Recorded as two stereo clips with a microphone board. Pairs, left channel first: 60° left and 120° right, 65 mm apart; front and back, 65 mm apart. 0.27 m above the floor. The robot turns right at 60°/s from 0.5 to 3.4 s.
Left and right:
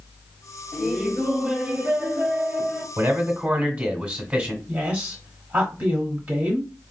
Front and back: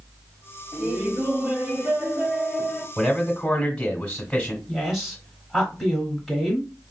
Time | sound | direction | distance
0.7 | laughter | 150° left | 1.0 m
3.0 | a man speaking | 95° right | 1.1 m
4.7 | a woman speaking | 90° right | 1.0 m